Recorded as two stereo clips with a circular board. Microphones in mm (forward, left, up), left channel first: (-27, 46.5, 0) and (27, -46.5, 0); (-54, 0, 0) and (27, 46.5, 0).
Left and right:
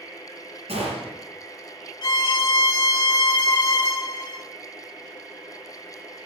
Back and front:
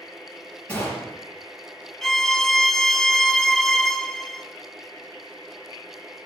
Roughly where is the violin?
Behind left.